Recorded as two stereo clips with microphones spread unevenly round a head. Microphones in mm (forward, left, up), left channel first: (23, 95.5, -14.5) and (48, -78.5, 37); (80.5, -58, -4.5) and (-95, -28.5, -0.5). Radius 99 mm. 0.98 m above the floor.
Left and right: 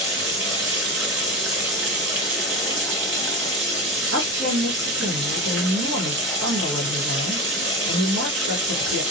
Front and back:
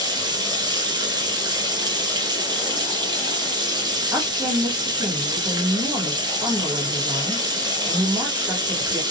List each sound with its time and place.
0.0 s running water: 120° right, 0.9 m
4.1 s a woman speaking: 115° right, 1.2 m